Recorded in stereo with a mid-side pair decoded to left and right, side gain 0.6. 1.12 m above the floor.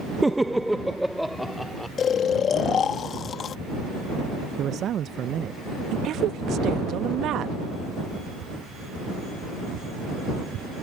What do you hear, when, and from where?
0.2 s laughter: 10° right; by 1.9 s straight ahead
2.0 s snoring: 45° left
4.6 s a man speaking: 50° right
5.9 s a woman speaking: 55° right